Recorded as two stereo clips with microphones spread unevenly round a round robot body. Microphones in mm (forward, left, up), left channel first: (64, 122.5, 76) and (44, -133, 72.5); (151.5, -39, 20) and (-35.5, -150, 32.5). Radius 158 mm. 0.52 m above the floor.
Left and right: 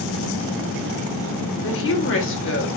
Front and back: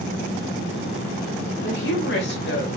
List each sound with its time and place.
1.6 s a woman speaking: 60° left, 2.5 m